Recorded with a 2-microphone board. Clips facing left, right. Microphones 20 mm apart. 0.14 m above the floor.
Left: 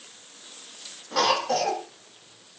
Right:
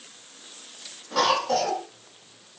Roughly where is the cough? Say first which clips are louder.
Right 1 dB; centre.